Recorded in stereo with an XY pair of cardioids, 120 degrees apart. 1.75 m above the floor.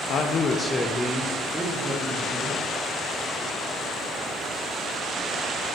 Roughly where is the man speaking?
Ahead left.